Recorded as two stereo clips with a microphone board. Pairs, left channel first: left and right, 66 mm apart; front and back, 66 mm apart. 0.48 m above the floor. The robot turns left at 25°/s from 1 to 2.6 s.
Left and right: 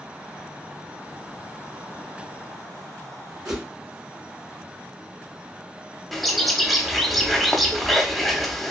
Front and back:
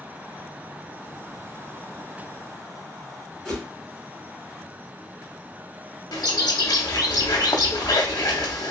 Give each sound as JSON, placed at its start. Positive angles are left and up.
{"t": 3.5, "sound": "a whoosh", "azimuth_deg": -80, "distance_m": 1.6}
{"t": 6.1, "sound": "a bird", "azimuth_deg": 0, "distance_m": 0.6}